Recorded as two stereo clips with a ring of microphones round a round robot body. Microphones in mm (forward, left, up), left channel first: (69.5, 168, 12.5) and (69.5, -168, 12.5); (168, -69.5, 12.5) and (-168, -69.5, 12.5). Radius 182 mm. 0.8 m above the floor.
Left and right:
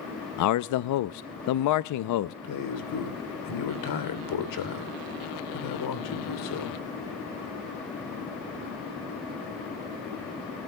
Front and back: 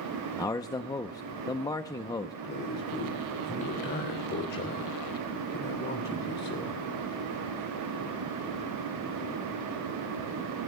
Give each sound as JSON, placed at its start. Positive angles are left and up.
{"t": 0.4, "sound": "a man speaking", "azimuth_deg": 80, "distance_m": 0.5}
{"t": 2.4, "sound": "a man speaking", "azimuth_deg": 65, "distance_m": 3.0}